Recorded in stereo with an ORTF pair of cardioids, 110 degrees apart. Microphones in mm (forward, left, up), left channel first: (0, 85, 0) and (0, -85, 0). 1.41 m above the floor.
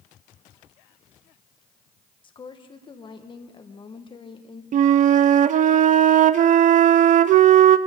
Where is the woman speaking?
30° left, 1.4 m.